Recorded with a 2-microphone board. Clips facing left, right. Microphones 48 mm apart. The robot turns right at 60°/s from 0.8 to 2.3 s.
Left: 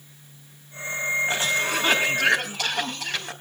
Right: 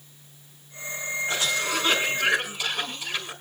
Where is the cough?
30° left, 3.5 m; by 3.3 s 90° left, 3.5 m.